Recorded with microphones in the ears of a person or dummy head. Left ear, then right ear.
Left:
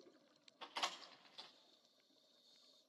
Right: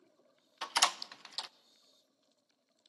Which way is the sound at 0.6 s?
70° right (ahead or behind).